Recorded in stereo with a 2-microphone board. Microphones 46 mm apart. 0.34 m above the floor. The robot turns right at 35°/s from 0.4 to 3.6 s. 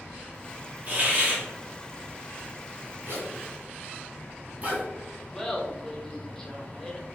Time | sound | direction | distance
0.9 | a hiss | 40° right (ahead or behind) | 2.0 m
3.1 | a zipper | 55° right (ahead or behind) | 1.5 m
5.3 | laughter | 10° left (ahead or behind) | 1.0 m